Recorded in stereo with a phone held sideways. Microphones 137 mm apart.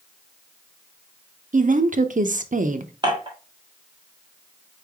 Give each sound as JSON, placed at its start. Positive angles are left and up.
{"t": 1.5, "sound": "a woman speaking", "side_deg": -65, "distance_m": 0.5}
{"t": 3.0, "sound": "dishes clattering", "side_deg": -35, "distance_m": 1.4}